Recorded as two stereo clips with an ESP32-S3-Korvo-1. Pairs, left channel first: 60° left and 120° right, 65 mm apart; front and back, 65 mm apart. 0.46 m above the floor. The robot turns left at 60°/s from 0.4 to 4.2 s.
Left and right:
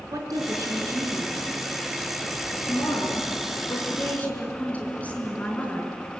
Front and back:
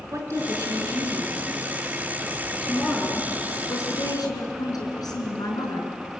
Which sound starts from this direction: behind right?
A woman speaking, at 0.1 s.